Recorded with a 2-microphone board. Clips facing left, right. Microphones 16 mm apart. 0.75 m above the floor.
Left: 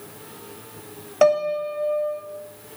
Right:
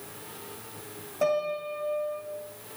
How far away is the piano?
About 1.7 m.